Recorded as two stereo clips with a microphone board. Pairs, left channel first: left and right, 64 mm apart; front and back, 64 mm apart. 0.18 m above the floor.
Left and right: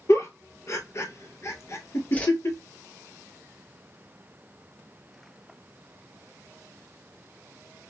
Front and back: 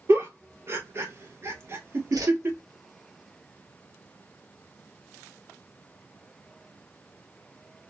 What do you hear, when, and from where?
0.1 s a giggle: 135° left, 0.9 m
2.1 s a whoosh: 155° left, 1.0 m